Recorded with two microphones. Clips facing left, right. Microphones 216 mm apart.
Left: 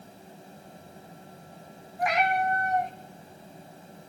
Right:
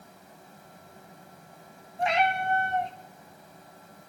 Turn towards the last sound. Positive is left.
turn(degrees=-25)  # may be behind; listen again after turning